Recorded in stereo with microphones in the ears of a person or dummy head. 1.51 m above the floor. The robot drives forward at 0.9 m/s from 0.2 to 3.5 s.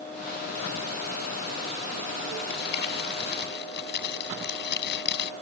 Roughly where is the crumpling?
Left.